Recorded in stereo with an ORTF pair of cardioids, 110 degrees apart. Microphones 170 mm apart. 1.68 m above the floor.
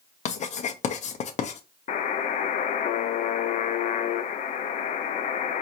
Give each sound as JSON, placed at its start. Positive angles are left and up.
{"t": 0.2, "sound": "writing", "azimuth_deg": 45, "distance_m": 0.8}
{"t": 1.9, "sound": "a buzzer", "azimuth_deg": 50, "distance_m": 0.7}